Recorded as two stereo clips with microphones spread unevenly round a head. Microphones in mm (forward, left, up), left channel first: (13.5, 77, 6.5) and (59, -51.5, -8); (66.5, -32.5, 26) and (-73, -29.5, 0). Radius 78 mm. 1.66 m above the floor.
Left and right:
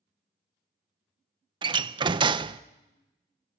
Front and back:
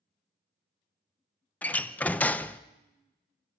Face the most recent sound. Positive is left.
turn(degrees=-45)